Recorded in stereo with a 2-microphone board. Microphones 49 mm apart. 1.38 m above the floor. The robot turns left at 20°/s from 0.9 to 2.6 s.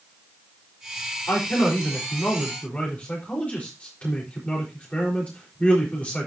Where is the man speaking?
55° left (ahead or behind), 4.5 m; by 6.3 s 25° left (ahead or behind), 4.5 m.